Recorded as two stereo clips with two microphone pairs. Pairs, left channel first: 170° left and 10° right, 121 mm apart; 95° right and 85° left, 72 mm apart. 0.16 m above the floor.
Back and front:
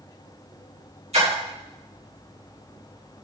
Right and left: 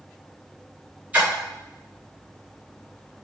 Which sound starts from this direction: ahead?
A splash, at 1.1 s.